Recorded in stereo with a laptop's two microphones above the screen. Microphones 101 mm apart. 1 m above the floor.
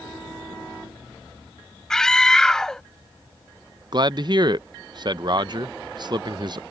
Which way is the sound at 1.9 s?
5° left (ahead or behind).